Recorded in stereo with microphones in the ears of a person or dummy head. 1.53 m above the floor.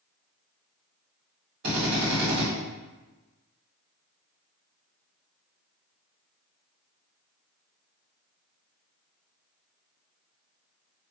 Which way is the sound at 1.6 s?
60° right (ahead or behind).